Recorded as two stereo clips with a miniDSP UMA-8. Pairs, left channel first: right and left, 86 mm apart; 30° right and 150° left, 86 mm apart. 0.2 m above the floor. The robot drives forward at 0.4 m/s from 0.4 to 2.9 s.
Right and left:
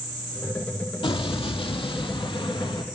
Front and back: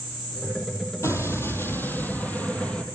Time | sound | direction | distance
1.0 | an explosion | 85° right | 1.9 m